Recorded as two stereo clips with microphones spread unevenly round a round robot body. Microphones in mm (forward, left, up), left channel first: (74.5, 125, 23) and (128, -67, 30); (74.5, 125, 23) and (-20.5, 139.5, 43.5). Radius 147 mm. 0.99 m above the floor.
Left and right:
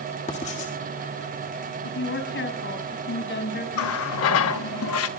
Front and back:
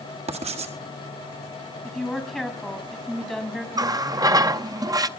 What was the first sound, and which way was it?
Writing, 170° left.